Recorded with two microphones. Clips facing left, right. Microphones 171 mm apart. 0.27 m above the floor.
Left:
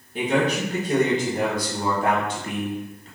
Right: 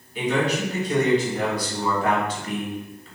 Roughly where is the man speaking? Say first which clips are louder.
Left 1 dB; left.